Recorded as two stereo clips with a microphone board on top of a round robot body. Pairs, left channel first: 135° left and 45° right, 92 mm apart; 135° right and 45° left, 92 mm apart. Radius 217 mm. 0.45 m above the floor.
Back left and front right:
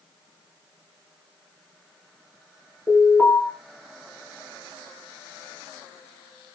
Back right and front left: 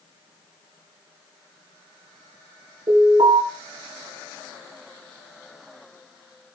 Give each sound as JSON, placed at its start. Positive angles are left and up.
{"t": 2.9, "sound": "an alarm", "azimuth_deg": 60, "distance_m": 7.0}